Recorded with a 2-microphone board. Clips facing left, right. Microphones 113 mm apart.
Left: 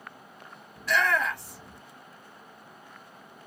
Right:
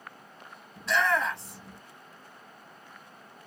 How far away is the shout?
About 1.4 m.